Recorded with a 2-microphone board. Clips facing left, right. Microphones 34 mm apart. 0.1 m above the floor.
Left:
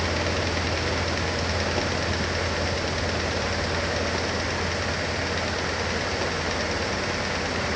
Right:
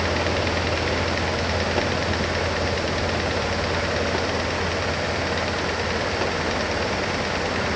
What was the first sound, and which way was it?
Only background noise.